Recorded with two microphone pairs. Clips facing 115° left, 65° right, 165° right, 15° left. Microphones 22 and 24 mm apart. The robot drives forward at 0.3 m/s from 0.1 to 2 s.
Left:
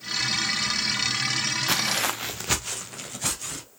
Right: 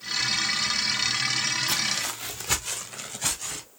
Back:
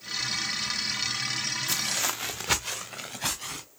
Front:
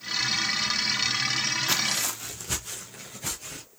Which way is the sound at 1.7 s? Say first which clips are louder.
Left 2 dB, front 2 dB; 75° left.